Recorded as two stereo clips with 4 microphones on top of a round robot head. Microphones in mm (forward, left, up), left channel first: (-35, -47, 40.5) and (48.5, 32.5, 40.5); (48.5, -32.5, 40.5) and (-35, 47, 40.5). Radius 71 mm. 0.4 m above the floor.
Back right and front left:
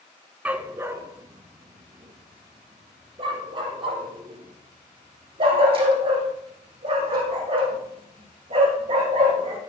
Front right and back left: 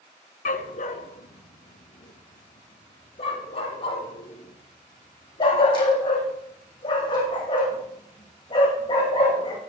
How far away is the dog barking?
About 1.0 m.